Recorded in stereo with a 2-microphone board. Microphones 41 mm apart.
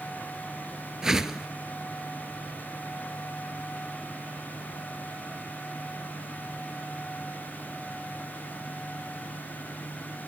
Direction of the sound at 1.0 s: 10° right (ahead or behind).